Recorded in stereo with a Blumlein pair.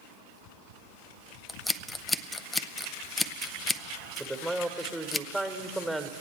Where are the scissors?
10° left, 0.6 m.